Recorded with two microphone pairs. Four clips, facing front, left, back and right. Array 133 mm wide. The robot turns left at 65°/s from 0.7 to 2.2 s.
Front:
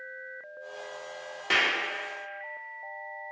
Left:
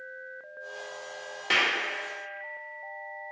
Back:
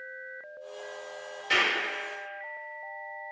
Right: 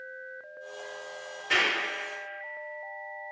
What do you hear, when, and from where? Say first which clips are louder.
1.5 s a clap: even, even; 40° left, 0.8 m; by 1.7 s 25° left, 0.8 m